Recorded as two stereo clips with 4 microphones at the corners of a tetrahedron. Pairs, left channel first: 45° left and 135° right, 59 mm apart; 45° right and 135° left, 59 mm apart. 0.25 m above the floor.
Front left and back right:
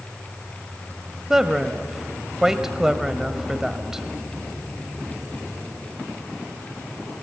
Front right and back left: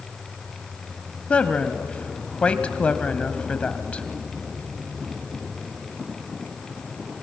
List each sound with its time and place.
1.3 s a woman speaking: 70° right, 1.1 m